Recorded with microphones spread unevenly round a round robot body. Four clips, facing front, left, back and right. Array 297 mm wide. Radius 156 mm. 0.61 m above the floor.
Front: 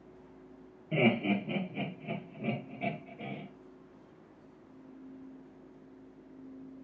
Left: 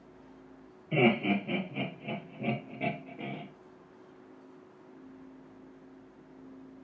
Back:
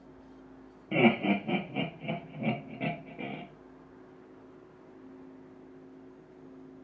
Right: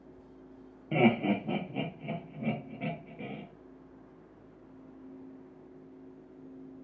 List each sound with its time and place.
0.9 s laughter: 120° right, 1.0 m; by 3.4 s 135° left, 1.3 m